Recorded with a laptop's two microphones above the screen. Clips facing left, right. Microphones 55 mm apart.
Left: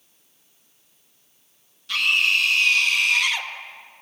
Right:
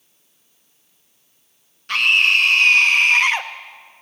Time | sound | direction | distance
1.9 | a scream | 50° right (ahead or behind) | 1.2 m